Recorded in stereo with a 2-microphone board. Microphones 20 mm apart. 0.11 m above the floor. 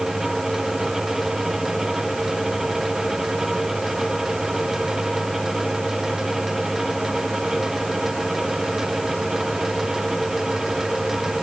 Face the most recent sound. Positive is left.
No sound to turn to.